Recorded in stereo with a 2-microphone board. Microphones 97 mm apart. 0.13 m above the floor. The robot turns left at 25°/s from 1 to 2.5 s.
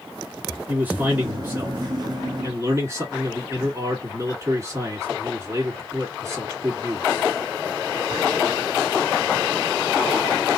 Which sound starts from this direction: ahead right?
A man speaking, at 0.7 s.